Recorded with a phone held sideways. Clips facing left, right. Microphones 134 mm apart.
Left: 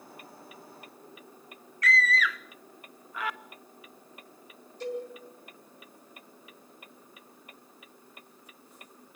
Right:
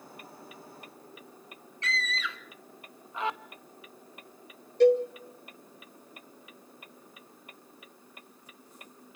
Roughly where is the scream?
Right.